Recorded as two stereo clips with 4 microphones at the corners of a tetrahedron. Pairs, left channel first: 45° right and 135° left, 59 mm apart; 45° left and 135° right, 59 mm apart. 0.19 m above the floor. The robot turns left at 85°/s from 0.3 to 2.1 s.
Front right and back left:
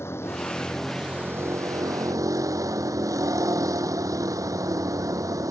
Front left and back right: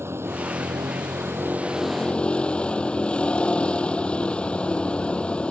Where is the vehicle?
90° right; by 5.5 s 115° left.